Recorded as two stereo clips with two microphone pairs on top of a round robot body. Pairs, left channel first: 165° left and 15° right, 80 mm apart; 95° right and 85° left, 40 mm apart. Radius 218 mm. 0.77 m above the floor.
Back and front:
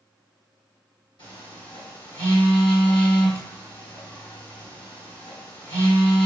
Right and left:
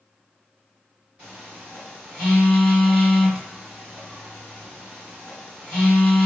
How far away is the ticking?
No ticking in this recording.